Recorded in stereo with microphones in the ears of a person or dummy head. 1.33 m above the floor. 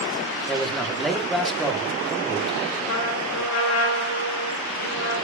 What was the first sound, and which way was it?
A man speaking, centre (ahead or behind).